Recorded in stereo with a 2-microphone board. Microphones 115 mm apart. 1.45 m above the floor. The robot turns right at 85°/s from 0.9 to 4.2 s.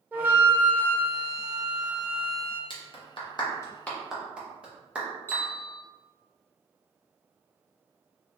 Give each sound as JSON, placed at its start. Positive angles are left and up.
{"t": 0.1, "sound": "a flute", "azimuth_deg": -160, "distance_m": 0.6}
{"t": 2.7, "sound": "a clap", "side_deg": 45, "distance_m": 0.8}
{"t": 5.3, "sound": "a bell", "side_deg": 15, "distance_m": 1.3}